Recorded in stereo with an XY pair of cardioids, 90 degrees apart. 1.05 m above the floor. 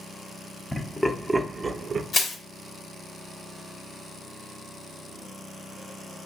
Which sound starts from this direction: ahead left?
Crushing, at 2.1 s.